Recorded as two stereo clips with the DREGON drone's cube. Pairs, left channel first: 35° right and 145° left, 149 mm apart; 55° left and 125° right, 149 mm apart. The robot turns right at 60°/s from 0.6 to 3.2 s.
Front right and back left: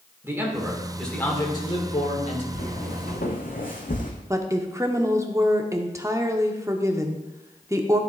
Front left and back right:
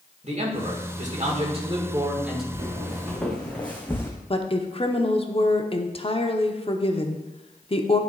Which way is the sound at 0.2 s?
145° right.